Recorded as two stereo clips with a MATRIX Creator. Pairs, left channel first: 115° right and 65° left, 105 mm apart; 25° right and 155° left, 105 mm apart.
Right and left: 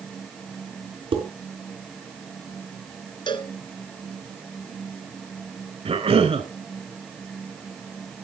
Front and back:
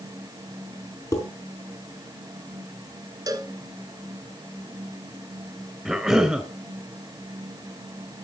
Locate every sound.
1.1 s dishes clattering: 35° left, 4.5 m
3.3 s a cowbell: 145° right, 1.7 m
5.8 s a cough: 70° left, 3 m